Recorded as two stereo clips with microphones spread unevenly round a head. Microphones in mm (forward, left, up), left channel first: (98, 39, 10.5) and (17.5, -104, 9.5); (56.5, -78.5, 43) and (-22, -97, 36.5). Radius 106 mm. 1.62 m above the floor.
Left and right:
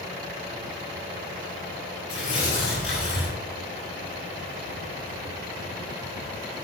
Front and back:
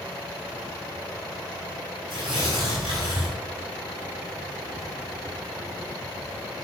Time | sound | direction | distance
2.1 | tearing paper | 70° left | 7 m